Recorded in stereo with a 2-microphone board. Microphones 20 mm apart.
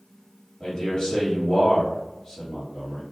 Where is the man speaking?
40° left (ahead or behind), 1.4 m.